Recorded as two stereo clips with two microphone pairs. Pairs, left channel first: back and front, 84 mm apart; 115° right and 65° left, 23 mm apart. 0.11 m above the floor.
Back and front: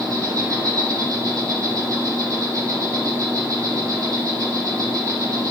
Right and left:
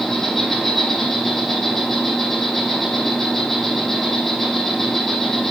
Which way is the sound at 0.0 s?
45° right.